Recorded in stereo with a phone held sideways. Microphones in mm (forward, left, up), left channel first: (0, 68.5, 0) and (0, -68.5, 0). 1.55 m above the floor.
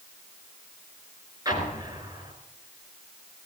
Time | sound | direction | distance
1.4 | an explosion | 30° right (ahead or behind) | 4.5 m